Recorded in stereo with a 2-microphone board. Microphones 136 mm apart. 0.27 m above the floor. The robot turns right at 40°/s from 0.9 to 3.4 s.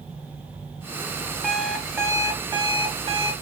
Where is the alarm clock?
Straight behind, 1.1 m; by 3.3 s 105° right, 1.1 m.